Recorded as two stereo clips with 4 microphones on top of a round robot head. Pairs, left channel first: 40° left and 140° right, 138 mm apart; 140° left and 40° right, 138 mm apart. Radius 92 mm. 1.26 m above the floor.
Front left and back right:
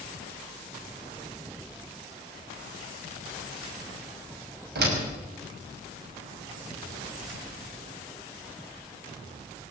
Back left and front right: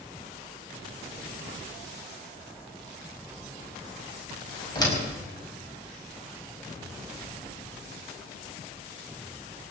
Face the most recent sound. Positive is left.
turn(degrees=-155)